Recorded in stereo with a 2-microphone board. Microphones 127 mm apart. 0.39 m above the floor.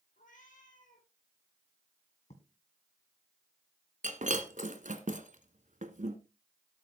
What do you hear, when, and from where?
0.2 s a cat meowing: 75° left (ahead or behind), 3 m
2.3 s writing: 60° left (ahead or behind), 1.7 m
4.0 s breaking glass: 75° right (ahead or behind), 1.2 m